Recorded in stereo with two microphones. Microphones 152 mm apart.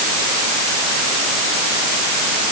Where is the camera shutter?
No camera shutter in this recording.